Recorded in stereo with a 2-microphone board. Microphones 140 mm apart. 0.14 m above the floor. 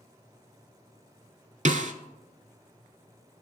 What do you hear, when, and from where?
1.6 s a snare drum: 60° right (ahead or behind), 0.6 m